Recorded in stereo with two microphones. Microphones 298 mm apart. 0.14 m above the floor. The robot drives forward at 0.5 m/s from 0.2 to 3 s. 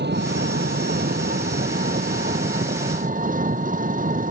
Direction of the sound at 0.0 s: 35° right (ahead or behind).